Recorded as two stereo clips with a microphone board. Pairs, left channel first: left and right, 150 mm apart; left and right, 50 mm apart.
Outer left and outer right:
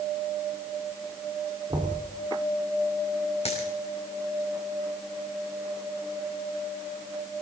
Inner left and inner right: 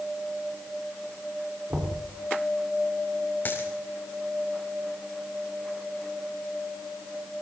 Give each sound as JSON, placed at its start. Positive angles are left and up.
{"t": 1.7, "sound": "knocking", "side_deg": -30, "distance_m": 4.5}
{"t": 3.5, "sound": "a dropped coin", "side_deg": 40, "distance_m": 4.0}